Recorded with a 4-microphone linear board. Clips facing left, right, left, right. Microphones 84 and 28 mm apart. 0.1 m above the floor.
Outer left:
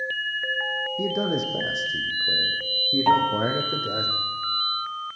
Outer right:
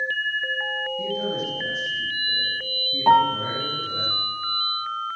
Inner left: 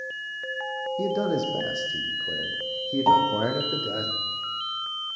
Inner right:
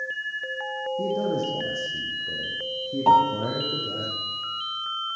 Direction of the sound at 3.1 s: 15° right (ahead or behind).